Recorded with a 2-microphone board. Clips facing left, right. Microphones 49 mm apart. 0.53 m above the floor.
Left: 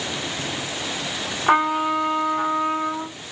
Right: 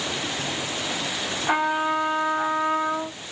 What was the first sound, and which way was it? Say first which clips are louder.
A trumpet: left 4 dB; 50° left (ahead or behind).